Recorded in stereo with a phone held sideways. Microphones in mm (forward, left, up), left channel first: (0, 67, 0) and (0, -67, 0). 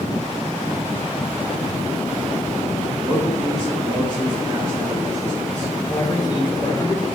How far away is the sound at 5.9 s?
About 3.5 m.